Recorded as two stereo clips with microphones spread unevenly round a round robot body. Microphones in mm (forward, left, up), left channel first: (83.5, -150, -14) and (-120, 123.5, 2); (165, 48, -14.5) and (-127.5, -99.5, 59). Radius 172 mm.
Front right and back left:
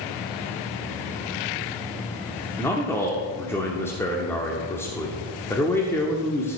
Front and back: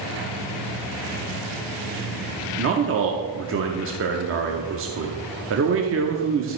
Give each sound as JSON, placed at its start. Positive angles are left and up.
{"t": 2.6, "sound": "a man speaking", "azimuth_deg": -125, "distance_m": 1.0}